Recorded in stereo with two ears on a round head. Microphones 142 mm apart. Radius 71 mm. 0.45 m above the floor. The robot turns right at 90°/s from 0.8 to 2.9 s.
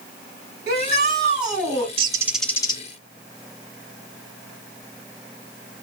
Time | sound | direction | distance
0.7 | a shout | 90° right | 4.5 m
2.0 | a bird | 40° right | 0.9 m